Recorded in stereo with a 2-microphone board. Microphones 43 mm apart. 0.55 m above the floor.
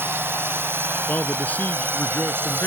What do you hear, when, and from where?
0.0 s a drone: 70° right (ahead or behind); by 2.7 s 60° right (ahead or behind)
1.1 s a man speaking: 40° left (ahead or behind)